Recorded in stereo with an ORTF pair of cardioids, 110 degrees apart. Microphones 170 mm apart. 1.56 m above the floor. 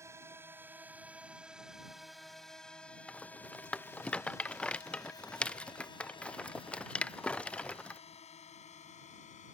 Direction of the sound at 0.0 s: 15° right.